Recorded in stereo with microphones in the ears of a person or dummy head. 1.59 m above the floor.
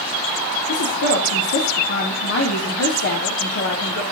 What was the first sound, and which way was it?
A woman speaking, 55° left (ahead or behind).